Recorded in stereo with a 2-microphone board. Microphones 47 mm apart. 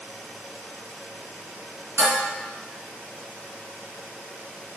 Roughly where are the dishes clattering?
Right.